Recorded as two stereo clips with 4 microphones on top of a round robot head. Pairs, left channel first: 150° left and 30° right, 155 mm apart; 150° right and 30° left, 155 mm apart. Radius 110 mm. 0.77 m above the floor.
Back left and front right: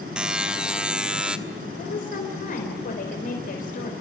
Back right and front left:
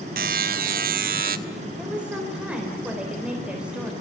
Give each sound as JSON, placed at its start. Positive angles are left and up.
{"t": 0.2, "sound": "a buzzer", "azimuth_deg": 55, "distance_m": 1.3}
{"t": 1.8, "sound": "a woman speaking", "azimuth_deg": 115, "distance_m": 4.0}